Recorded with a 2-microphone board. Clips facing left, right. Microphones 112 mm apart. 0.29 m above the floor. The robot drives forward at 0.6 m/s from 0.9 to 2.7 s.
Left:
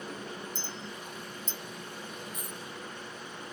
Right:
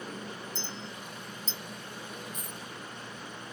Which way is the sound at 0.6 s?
45° left (ahead or behind).